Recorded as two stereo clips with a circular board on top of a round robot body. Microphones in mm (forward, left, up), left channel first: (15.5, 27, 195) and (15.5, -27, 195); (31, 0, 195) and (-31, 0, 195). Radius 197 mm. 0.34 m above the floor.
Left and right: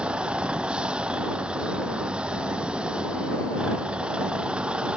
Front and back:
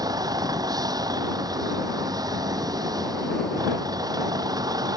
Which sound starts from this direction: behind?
A vehicle, at 0.0 s.